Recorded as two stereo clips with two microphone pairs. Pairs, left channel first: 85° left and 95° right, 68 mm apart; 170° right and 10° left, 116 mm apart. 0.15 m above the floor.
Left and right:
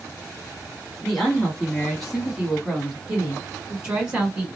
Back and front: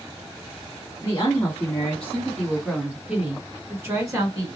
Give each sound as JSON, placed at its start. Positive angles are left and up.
{"t": 1.0, "sound": "a woman speaking", "azimuth_deg": 170, "distance_m": 1.5}